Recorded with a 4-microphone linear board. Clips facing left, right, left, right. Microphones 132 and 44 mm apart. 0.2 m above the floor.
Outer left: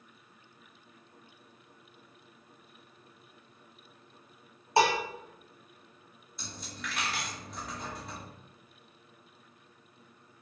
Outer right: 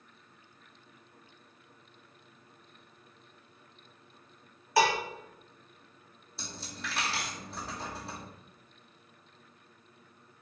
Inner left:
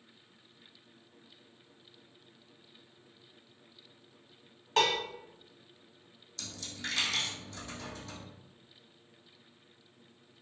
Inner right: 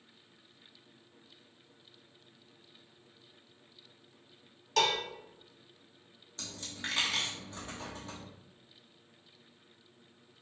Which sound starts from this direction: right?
A dropped coin, at 6.4 s.